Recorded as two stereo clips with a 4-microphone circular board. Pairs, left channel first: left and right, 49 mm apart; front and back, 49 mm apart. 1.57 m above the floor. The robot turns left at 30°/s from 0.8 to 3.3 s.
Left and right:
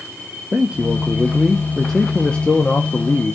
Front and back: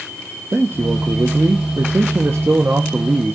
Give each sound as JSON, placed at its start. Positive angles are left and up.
{"t": 0.5, "sound": "a man speaking", "azimuth_deg": -155, "distance_m": 0.9}